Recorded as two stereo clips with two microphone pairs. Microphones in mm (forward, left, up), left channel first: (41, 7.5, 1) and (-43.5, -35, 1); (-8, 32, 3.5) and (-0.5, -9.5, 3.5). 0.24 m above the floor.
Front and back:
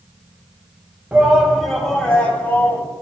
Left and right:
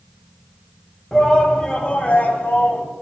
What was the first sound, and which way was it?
A shout, 160° left.